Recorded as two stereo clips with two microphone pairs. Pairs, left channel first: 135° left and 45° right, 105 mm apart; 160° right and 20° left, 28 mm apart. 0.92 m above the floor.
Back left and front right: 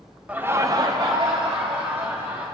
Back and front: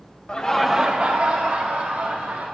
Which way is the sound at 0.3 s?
120° right.